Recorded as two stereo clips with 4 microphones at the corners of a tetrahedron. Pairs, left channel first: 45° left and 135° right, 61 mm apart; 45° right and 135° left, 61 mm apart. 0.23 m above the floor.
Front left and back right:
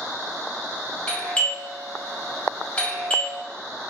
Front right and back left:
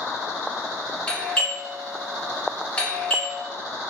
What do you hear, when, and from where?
1.1 s a doorbell: straight ahead, 1.6 m